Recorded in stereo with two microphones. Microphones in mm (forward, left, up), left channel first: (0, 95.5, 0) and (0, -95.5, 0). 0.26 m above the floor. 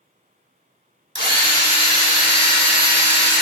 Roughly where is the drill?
Right.